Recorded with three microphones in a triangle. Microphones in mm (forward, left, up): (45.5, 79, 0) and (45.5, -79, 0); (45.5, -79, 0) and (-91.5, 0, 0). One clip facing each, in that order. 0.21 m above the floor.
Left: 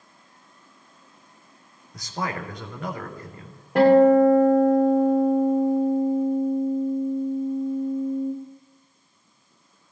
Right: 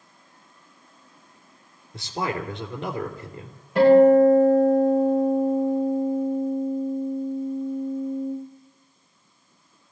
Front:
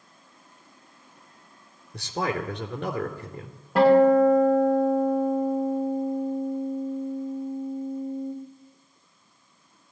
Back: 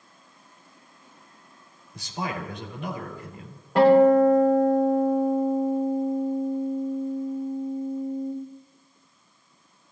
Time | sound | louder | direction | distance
1.9 | a man speaking | right 2 dB, front 4 dB | 25° right | 3 m
3.8 | a guitar | right 1 dB, back 1 dB | 55° left | 8 m